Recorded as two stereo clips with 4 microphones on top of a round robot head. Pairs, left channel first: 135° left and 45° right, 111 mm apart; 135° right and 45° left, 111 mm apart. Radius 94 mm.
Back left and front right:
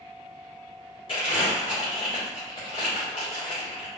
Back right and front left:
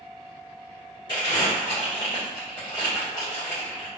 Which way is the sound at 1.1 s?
175° left.